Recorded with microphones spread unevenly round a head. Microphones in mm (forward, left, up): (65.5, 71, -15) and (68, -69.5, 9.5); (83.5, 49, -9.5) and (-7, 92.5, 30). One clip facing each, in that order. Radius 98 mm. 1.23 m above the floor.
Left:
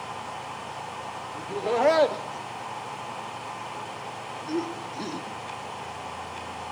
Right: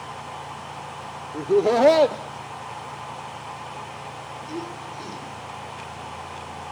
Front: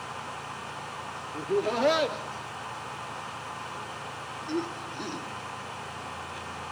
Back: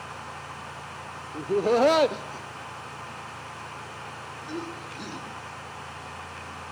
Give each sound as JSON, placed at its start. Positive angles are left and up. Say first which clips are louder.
{"t": 1.3, "sound": "laughter", "louder": "right 8 dB, back 5 dB", "azimuth_deg": -130, "distance_m": 1.1}